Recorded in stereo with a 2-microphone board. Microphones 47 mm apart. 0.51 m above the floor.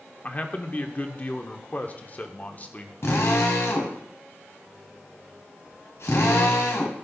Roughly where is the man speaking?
Left.